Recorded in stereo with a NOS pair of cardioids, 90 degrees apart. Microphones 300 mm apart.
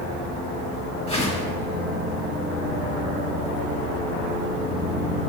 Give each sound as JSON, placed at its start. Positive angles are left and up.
{"t": 1.1, "sound": "a whoosh", "azimuth_deg": 20, "distance_m": 1.4}